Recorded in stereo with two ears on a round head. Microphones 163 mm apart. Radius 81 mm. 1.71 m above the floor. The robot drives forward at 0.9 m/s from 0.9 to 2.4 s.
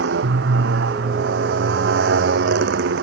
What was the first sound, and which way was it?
A motorcycle, 70° right (ahead or behind).